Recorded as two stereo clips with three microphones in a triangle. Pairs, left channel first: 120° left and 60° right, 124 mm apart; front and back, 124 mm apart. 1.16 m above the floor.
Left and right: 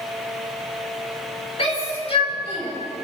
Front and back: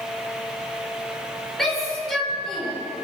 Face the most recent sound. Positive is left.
turn(degrees=85)